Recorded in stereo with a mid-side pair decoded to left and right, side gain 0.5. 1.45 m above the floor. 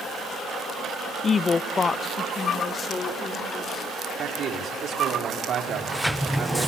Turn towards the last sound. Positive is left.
turn(degrees=5)